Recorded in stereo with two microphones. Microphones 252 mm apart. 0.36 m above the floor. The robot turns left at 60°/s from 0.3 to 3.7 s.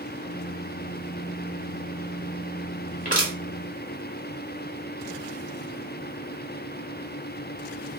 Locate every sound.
3.0 s crushing: 30° left (ahead or behind), 1.5 m; by 3.3 s 35° left (ahead or behind), 1.5 m